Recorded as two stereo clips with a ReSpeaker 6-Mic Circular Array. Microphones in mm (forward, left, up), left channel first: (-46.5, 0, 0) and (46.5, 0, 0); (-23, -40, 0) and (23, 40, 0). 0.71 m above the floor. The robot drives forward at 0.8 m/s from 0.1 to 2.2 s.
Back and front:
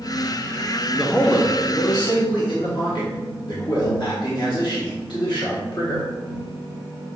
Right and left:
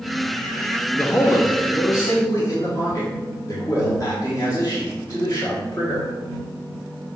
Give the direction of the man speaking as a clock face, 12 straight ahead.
3 o'clock.